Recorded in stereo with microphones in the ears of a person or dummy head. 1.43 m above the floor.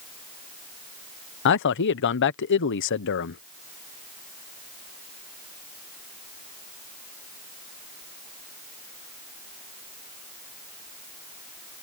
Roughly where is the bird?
I don't hear a bird.